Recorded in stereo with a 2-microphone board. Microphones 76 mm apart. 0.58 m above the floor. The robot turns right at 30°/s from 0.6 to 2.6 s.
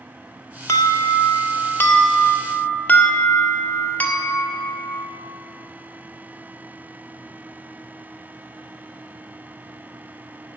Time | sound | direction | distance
0.7 | an alarm | 90° left | 1.6 m